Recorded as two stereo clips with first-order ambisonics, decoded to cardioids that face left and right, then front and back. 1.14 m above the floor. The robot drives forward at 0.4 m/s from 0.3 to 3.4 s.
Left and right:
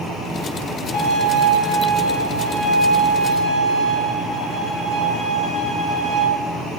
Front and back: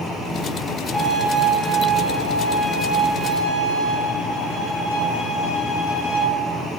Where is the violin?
75° left, 0.6 m; by 6.2 s 145° left, 1.0 m.